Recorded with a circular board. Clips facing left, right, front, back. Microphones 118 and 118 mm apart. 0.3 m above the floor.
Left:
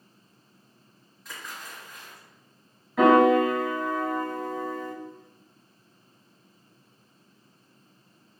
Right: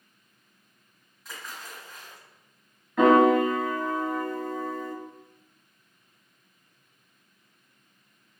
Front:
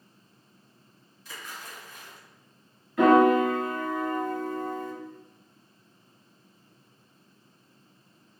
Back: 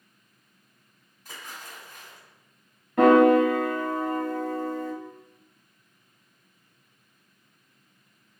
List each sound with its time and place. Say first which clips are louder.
1.2 s a splash: even, even; straight behind, 1.9 m
3.0 s a piano: even, back 2 dB; 175° left, 1.1 m